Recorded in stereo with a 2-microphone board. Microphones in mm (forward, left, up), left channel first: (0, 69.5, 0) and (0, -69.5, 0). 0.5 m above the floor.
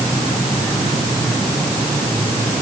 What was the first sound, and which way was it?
Only background noise.